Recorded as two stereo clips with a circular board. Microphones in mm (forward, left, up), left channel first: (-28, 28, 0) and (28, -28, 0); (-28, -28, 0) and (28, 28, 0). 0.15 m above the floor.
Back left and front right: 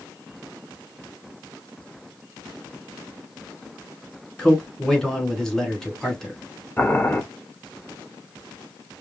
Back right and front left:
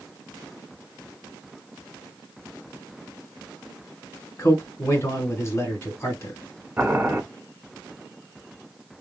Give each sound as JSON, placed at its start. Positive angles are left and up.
{"t": 4.4, "sound": "a man speaking", "azimuth_deg": -145, "distance_m": 1.3}
{"t": 6.8, "sound": "boiling", "azimuth_deg": 105, "distance_m": 1.1}